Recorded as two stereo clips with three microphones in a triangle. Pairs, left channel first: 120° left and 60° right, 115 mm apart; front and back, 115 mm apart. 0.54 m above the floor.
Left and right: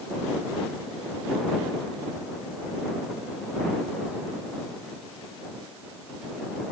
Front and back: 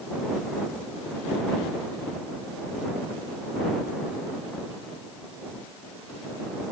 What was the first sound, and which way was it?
Only background noise.